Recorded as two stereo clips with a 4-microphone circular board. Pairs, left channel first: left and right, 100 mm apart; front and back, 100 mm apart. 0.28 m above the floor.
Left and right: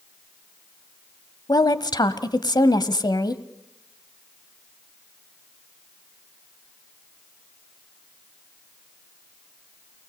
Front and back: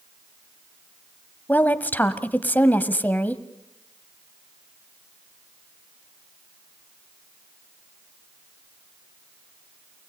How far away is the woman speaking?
About 1.2 m.